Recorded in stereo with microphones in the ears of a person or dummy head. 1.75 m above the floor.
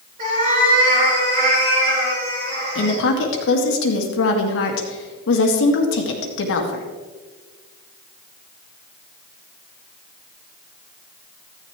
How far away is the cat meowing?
About 5 m.